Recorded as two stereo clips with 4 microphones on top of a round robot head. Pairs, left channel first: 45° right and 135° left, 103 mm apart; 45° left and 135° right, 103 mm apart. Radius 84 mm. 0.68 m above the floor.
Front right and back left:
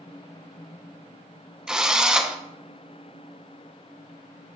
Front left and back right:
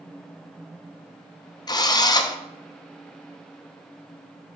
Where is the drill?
55° left, 0.9 m.